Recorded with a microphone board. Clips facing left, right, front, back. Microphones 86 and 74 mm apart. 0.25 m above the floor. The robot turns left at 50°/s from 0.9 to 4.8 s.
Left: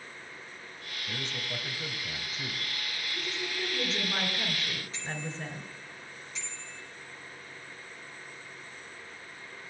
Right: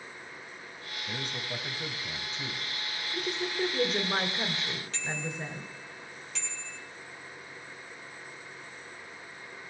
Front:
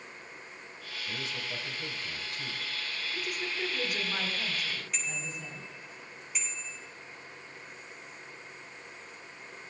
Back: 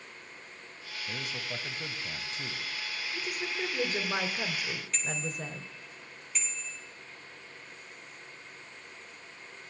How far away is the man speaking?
About 1.3 m.